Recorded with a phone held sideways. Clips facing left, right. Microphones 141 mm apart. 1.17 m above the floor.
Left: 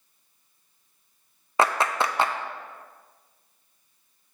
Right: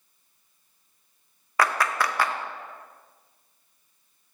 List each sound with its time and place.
1.6 s a clap: 25° left (ahead or behind), 0.5 m